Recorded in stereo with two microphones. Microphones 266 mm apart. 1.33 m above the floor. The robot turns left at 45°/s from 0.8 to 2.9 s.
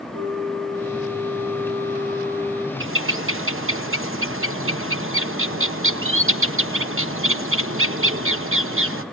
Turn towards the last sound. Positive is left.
turn(degrees=-55)  # may be behind; listen again after turning